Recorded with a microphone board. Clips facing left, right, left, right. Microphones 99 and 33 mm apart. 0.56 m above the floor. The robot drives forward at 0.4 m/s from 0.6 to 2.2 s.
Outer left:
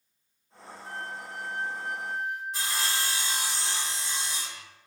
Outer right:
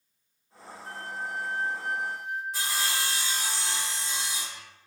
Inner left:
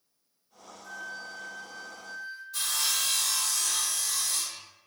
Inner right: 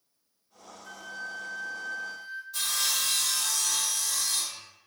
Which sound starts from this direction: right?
A flute, at 0.8 s.